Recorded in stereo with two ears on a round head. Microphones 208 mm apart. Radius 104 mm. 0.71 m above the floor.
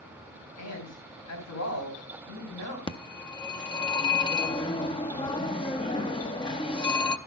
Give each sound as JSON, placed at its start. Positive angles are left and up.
{"t": 0.6, "sound": "a man speaking", "side_deg": 75, "distance_m": 3.0}
{"t": 2.9, "sound": "a phone ringing", "side_deg": 20, "distance_m": 0.7}